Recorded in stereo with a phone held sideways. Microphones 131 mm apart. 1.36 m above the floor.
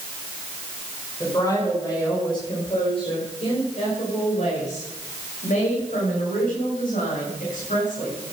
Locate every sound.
1.2 s a woman speaking: 25° left (ahead or behind), 5.5 m; by 8.2 s 85° left, 8 m